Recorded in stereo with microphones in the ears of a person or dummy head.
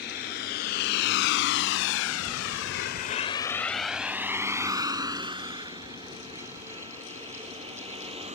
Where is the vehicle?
50° left (ahead or behind); by 8.3 s 30° right (ahead or behind).